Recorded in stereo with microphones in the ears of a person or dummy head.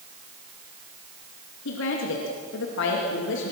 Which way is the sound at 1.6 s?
65° left (ahead or behind).